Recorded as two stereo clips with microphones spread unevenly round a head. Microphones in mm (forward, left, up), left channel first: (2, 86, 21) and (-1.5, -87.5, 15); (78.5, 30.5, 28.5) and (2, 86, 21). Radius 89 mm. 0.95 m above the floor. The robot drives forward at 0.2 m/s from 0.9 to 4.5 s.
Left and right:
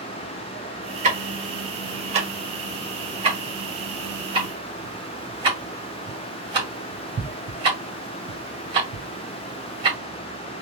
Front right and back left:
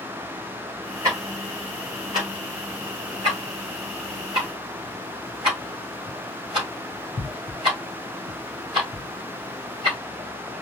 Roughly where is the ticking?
Behind right.